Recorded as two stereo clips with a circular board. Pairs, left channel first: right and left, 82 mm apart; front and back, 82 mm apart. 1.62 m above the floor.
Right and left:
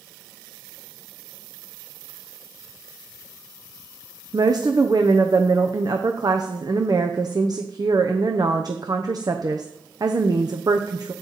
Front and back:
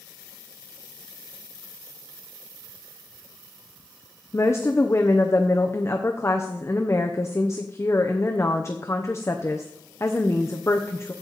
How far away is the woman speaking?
About 0.8 m.